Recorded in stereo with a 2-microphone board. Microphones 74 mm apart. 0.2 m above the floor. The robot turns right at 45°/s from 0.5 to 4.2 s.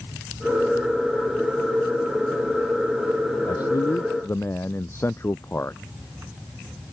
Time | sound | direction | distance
3.5 | a man speaking | 110° left | ?